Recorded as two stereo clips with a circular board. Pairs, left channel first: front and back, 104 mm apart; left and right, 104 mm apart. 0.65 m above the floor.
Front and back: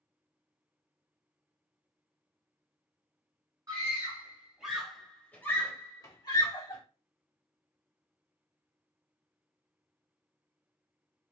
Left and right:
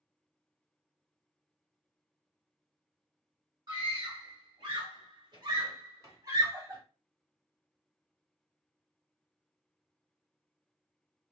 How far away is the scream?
About 1.3 m.